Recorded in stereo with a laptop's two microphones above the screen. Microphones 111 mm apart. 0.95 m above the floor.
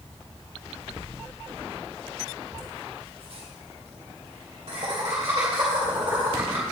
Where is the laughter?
30° right (ahead or behind), 3 m; by 6.6 s 20° right (ahead or behind), 4.5 m.